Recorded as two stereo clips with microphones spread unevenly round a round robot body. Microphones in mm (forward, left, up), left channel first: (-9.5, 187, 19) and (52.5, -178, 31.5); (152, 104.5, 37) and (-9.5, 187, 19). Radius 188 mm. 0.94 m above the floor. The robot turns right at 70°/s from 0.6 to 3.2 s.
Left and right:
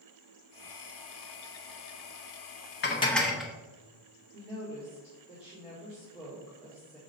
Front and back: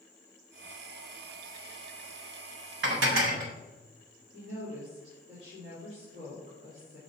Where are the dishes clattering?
165° left, 0.7 m; by 3.5 s 170° right, 0.7 m.